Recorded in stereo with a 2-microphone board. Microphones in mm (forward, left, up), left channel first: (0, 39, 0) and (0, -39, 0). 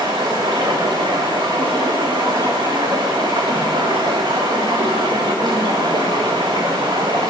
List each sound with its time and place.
0.0 s running water: 75° right (ahead or behind), 1.4 m